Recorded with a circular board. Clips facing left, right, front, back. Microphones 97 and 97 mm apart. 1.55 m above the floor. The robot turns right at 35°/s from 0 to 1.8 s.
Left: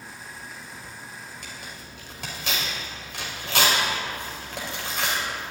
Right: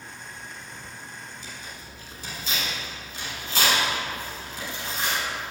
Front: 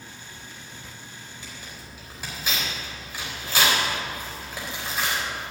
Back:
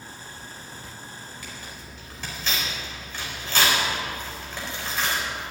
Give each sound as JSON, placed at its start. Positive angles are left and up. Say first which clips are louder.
{"t": 1.4, "sound": "tearing paper", "louder": "even, back 2 dB", "azimuth_deg": 65, "distance_m": 4.5}